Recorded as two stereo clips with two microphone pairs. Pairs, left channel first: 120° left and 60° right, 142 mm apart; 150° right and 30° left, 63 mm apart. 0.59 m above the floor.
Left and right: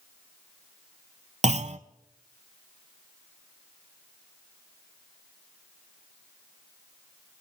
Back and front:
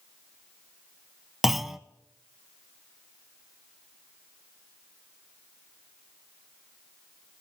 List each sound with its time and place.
1.4 s a clunk: 55° right, 0.6 m